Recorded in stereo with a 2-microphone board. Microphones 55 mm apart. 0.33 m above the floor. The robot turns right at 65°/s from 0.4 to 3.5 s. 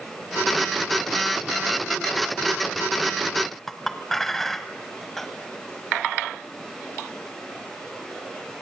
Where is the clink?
5° left (ahead or behind), 1.3 m.